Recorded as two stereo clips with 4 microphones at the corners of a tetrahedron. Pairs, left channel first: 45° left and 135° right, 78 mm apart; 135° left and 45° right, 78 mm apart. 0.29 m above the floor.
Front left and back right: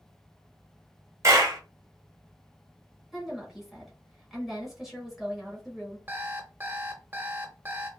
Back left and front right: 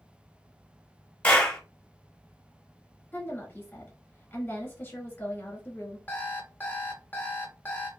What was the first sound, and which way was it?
A clap, 160° right.